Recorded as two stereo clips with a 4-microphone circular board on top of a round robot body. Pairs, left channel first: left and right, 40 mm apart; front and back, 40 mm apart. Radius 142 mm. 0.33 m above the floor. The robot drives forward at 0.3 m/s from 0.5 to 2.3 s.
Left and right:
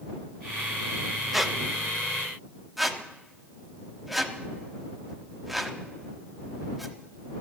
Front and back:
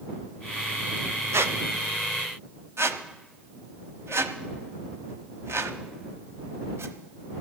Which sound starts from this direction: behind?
A squeak, at 1.3 s.